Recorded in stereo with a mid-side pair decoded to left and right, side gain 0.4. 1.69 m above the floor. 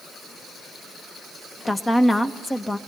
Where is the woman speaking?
25° left, 1.6 m.